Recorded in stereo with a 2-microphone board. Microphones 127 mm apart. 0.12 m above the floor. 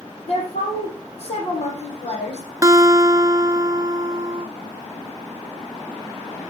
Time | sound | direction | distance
0.3 | a woman speaking | 55° left (ahead or behind) | 5 m
2.6 | a guitar | 30° right (ahead or behind) | 0.5 m